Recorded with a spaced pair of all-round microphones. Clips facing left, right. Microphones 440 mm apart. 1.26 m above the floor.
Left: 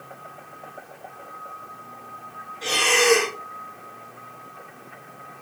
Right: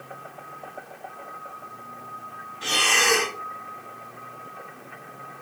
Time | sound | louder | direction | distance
2.6 | breathing | left 7 dB | 30° right (ahead or behind) | 0.6 m